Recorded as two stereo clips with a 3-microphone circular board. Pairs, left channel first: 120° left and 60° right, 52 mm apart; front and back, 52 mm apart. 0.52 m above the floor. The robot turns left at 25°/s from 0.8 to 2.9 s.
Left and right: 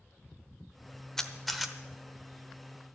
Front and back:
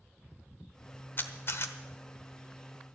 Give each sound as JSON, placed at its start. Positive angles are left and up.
{"t": 1.2, "sound": "a camera shutter", "azimuth_deg": 40, "distance_m": 0.9}